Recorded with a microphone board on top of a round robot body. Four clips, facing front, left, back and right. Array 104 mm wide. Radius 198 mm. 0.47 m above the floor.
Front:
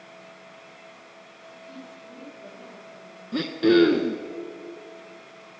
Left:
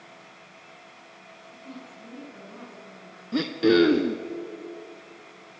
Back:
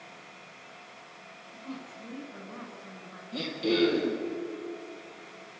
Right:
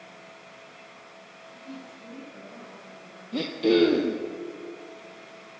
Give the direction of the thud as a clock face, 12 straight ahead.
I don't hear a thud.